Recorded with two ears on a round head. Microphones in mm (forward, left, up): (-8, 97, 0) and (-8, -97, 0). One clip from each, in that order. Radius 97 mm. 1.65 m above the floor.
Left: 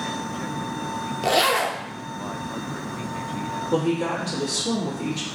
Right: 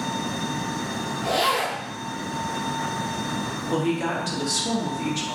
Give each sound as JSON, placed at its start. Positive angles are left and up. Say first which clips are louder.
{"t": 1.2, "sound": "a zipper", "louder": "left 3 dB", "side_deg": 70, "distance_m": 0.6}
{"t": 3.7, "sound": "a woman speaking", "louder": "left 1 dB", "side_deg": -30, "distance_m": 0.9}